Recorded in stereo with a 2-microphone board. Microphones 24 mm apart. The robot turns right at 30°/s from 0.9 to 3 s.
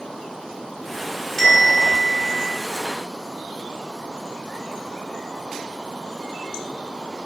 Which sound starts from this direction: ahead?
A bell, at 1.4 s.